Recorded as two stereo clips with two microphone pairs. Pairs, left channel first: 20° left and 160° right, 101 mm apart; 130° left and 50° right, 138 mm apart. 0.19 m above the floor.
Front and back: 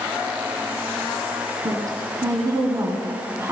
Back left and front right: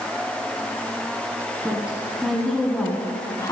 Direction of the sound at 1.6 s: 125° right.